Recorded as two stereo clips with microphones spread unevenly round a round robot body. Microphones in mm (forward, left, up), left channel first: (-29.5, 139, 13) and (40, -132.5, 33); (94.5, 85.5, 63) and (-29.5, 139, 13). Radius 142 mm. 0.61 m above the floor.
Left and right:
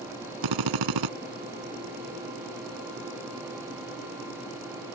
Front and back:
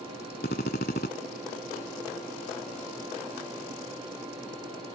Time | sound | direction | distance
0.4 | a drill | 70° right | ?